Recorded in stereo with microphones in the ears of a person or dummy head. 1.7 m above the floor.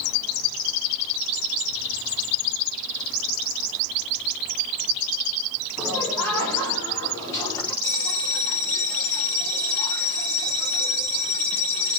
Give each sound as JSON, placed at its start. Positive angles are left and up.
{"t": 5.8, "sound": "laughter", "side_deg": 5, "distance_m": 3.5}
{"t": 7.8, "sound": "a bell", "side_deg": 10, "distance_m": 3.0}